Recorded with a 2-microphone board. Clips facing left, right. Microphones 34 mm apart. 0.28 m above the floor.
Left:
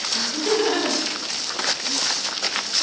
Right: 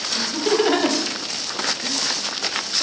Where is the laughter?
20° right (ahead or behind), 1.6 m; by 2.0 s 40° right (ahead or behind), 2 m.